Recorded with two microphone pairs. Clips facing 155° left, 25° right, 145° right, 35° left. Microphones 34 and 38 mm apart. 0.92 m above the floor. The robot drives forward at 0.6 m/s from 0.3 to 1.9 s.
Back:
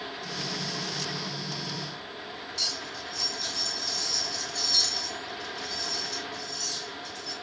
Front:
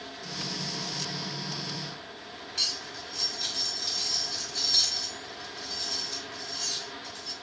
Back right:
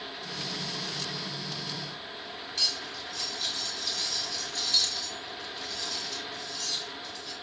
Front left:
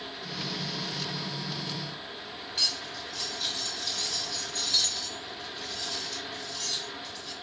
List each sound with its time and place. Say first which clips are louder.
2.5 s cutlery clinking: front 1 dB, front left 1 dB; 45° right, 1.7 m